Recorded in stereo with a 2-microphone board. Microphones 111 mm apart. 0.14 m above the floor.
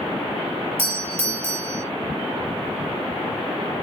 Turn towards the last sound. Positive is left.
turn(degrees=-60)  # may be behind; listen again after turning